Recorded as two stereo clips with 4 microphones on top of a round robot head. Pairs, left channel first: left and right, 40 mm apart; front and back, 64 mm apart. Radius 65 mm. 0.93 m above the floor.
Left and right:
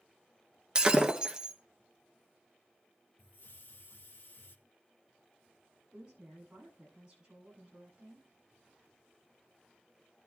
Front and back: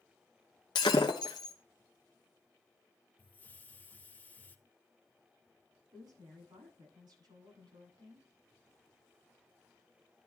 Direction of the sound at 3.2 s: 60° left.